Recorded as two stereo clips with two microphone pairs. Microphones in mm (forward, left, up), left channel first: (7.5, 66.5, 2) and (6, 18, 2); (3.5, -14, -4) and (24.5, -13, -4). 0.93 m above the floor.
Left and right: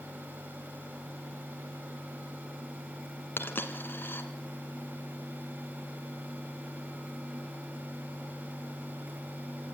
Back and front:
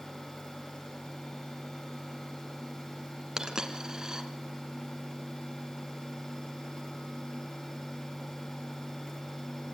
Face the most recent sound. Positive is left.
turn(degrees=50)